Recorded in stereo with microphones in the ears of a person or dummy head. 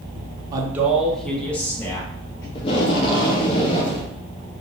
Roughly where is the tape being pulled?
Left.